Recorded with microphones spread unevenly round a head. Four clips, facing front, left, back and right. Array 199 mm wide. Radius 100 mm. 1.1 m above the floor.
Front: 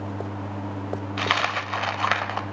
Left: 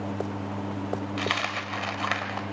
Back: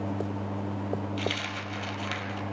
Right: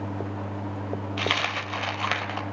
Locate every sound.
1.2 s a dropped coin: 10° right, 1.7 m